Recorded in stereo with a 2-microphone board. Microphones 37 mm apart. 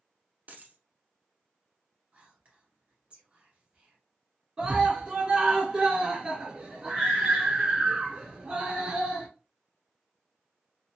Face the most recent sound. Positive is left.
turn(degrees=-30)  # may be behind; listen again after turning